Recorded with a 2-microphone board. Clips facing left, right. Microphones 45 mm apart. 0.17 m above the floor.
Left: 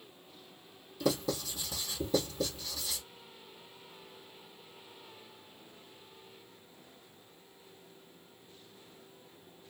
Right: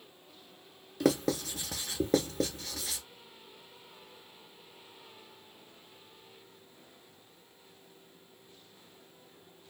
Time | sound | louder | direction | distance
1.0 | writing | right 4 dB | 65° right (ahead or behind) | 1.0 m